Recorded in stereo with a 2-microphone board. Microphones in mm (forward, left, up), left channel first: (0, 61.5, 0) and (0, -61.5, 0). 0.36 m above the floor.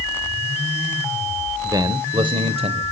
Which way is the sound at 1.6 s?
25° right (ahead or behind).